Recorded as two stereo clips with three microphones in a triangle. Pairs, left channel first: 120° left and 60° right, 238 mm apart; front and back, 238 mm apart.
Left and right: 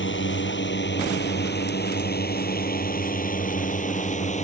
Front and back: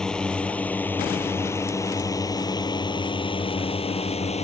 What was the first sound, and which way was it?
A drone, 85° left.